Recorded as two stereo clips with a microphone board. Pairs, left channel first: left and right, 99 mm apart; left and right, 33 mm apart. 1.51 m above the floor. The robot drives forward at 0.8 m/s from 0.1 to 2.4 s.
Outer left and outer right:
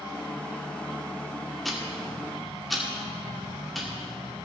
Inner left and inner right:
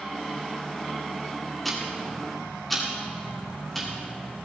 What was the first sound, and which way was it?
Ticking, centre (ahead or behind).